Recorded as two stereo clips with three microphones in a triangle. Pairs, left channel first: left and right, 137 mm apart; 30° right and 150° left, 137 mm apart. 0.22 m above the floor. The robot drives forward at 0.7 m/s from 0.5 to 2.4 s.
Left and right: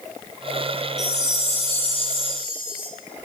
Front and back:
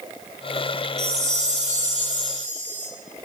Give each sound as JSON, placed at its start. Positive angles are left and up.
{"t": 1.0, "sound": "a chime", "azimuth_deg": 120, "distance_m": 2.5}